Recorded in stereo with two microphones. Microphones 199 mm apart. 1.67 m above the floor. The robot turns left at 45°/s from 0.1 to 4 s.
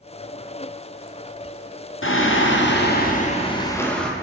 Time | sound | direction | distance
2.0 | singing | 95° left | 0.8 m